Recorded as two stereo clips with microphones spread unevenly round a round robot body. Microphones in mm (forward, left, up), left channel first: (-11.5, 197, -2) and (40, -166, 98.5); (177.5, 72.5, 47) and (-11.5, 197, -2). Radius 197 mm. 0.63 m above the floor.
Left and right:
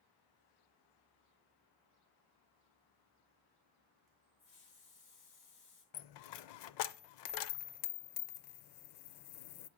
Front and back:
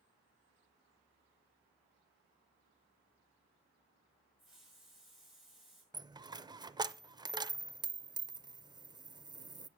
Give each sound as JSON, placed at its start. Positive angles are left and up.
{"t": 4.4, "sound": "a hiss", "azimuth_deg": 60, "distance_m": 6.0}
{"t": 5.9, "sound": "a dropped coin", "azimuth_deg": 65, "distance_m": 0.6}